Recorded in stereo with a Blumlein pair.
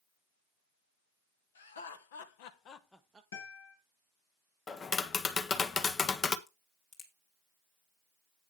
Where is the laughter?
70° left, 1.7 m; by 3.2 s 20° right, 0.7 m.